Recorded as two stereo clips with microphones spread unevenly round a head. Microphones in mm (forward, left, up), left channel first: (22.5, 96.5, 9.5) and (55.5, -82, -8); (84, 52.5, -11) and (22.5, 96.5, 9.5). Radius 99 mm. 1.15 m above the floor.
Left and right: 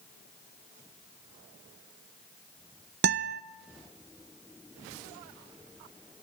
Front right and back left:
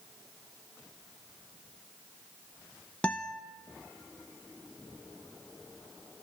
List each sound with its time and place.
3.0 s a guitar: 115° right, 0.5 m